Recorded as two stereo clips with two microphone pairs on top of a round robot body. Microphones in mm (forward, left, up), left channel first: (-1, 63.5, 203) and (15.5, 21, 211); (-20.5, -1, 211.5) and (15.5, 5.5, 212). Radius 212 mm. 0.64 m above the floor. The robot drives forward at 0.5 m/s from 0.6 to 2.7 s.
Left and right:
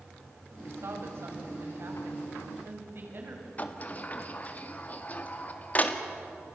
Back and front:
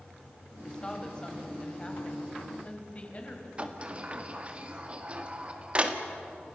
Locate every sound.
0.6 s a woman speaking: 100° right, 4 m; by 3.5 s 110° right, 4.5 m
3.6 s a sliding door: 65° left, 2 m